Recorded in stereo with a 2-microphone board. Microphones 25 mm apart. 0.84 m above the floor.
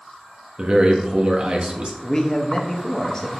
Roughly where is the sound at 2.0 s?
Left.